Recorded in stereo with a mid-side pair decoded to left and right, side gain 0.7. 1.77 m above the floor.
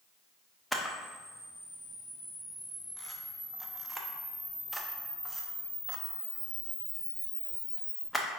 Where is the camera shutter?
5° left, 0.7 m.